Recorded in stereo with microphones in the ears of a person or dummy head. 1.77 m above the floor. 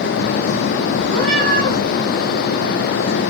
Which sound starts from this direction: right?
A cat meowing, at 1.1 s.